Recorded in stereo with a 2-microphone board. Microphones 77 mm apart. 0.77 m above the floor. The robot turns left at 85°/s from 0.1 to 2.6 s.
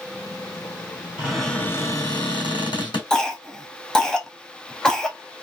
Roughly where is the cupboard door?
Behind.